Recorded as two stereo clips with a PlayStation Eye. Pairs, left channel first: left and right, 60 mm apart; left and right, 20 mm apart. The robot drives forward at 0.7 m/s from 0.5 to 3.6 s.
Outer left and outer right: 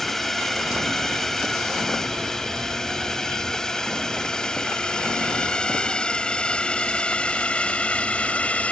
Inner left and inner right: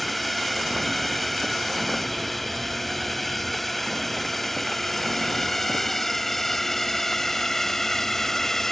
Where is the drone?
5° left (ahead or behind); by 8.7 s 20° left (ahead or behind).